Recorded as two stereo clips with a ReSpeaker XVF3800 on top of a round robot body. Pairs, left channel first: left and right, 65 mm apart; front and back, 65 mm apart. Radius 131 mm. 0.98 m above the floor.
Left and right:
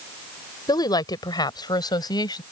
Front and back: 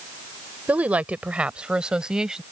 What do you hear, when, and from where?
0.7 s a woman speaking: 110° left; by 2.4 s 100° left